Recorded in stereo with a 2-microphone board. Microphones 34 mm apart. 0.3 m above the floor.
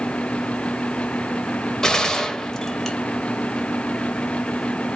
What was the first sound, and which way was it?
A gunshot, 15° left (ahead or behind).